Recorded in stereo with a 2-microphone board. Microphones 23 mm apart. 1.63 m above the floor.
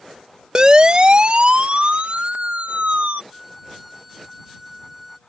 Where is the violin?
5° right (ahead or behind).